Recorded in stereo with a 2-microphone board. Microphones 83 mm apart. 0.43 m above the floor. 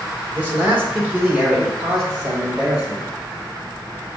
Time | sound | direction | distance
0.3 | a man speaking | 20° right (ahead or behind) | 1.2 m